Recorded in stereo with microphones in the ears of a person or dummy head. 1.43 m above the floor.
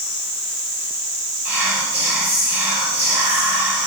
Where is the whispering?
15° right (ahead or behind), 1.2 m.